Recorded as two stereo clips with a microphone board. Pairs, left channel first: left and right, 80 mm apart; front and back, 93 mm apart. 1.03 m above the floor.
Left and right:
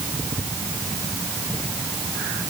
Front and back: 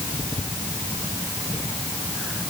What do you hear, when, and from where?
Only background noise.